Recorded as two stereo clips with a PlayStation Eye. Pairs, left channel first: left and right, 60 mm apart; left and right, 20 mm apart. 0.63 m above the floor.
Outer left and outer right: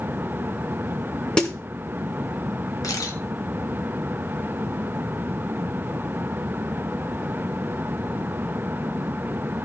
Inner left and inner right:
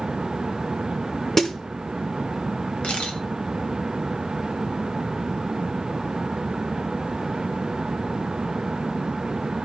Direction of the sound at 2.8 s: 75° left (ahead or behind).